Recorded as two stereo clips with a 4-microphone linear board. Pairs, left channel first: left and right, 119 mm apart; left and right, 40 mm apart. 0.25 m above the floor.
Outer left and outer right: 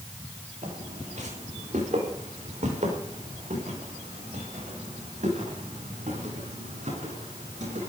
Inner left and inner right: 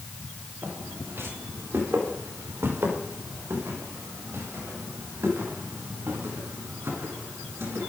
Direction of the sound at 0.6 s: 85° right.